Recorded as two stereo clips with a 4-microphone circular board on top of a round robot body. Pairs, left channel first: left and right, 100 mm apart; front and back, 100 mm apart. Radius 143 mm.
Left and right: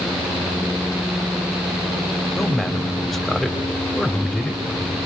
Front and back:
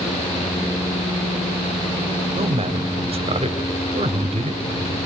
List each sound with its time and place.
2.4 s a man speaking: 175° left, 3.5 m